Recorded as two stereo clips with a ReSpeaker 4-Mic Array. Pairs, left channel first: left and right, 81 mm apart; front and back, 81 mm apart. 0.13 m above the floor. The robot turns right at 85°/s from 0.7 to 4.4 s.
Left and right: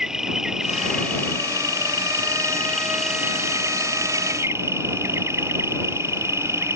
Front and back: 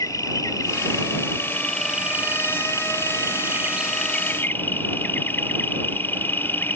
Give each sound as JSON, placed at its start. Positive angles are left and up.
{"t": 0.0, "sound": "an insect", "azimuth_deg": -10}